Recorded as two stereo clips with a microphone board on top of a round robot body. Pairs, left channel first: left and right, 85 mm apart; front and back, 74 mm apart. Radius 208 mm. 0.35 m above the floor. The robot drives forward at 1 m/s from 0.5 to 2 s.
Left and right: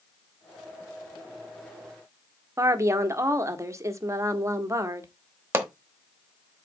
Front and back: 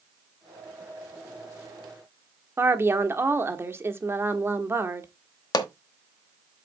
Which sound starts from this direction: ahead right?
A pop, at 5.5 s.